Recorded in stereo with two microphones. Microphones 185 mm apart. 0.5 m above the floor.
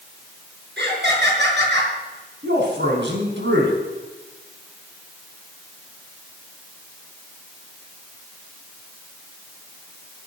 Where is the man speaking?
75° right (ahead or behind), 4.5 m.